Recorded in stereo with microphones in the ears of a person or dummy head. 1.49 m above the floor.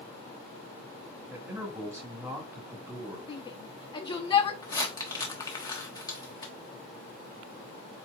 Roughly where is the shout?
Left.